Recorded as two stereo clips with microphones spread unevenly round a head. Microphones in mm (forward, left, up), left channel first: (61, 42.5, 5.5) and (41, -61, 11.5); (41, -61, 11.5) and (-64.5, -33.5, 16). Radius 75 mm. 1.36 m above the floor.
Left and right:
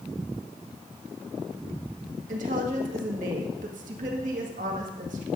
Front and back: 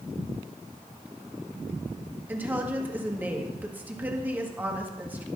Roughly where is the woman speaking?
Behind right.